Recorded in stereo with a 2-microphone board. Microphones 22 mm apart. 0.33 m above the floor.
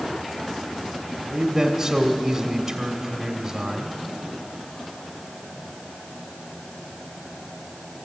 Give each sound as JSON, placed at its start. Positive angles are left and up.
{"t": 1.3, "sound": "a man speaking", "side_deg": -25, "distance_m": 1.2}